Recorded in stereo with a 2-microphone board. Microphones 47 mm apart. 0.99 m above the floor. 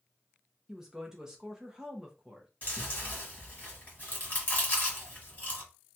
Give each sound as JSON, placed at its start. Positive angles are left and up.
{"t": 0.7, "sound": "a woman speaking", "side_deg": -15, "distance_m": 0.6}
{"t": 2.6, "sound": "chewing", "side_deg": 35, "distance_m": 1.6}